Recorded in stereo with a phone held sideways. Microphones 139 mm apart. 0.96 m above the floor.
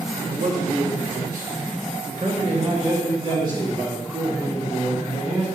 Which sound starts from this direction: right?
A man speaking, at 0.3 s.